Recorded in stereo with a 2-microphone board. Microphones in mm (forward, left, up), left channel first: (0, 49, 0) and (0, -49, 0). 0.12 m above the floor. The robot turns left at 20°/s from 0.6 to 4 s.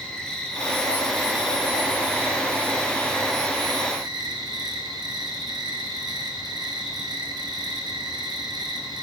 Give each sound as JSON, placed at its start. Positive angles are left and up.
{"t": 0.0, "sound": "an insect", "azimuth_deg": 10, "distance_m": 0.8}